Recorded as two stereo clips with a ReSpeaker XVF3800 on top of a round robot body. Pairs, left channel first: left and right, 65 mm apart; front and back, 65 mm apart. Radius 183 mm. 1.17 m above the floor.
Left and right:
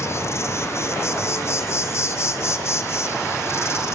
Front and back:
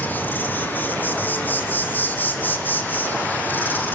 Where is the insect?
55° left, 1.9 m.